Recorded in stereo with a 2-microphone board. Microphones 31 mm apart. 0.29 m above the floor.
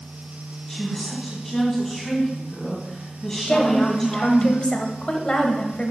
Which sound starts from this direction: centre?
A woman speaking, at 0.7 s.